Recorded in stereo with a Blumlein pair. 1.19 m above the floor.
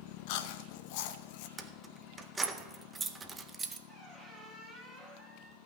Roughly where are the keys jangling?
Ahead.